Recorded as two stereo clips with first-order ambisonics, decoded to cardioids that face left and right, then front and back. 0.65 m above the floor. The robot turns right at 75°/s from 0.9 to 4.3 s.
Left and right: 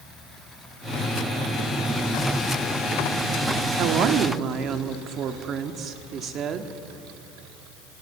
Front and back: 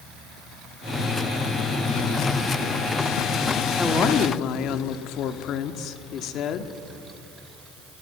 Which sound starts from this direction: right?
A woman speaking, at 3.8 s.